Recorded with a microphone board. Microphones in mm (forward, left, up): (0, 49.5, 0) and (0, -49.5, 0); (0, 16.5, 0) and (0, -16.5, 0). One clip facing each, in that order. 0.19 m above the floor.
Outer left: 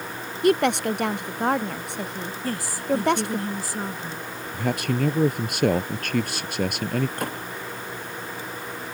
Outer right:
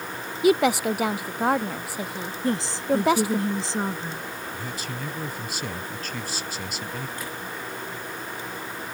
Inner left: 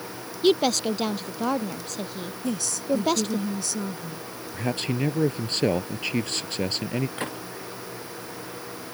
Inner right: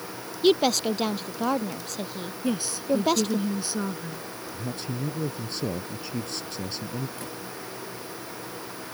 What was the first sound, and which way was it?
A woman speaking, 5° right (ahead or behind).